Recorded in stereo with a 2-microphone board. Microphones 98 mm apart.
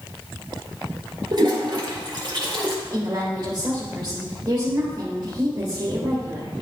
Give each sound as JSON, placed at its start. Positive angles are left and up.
{"t": 1.3, "sound": "a toilet flushing", "side_deg": -45, "distance_m": 2.5}
{"t": 2.9, "sound": "a woman speaking", "side_deg": -40, "distance_m": 2.0}